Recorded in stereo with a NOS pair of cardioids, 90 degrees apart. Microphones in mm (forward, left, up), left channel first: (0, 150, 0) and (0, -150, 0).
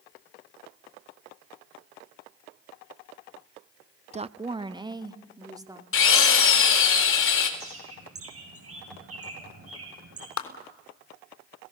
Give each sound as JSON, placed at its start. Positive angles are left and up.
{"t": 4.1, "sound": "a woman speaking", "azimuth_deg": -25, "distance_m": 0.6}
{"t": 5.9, "sound": "a drill", "azimuth_deg": 45, "distance_m": 4.5}
{"t": 7.6, "sound": "a bird", "azimuth_deg": -50, "distance_m": 8.0}
{"t": 10.4, "sound": "a clap", "azimuth_deg": 60, "distance_m": 3.5}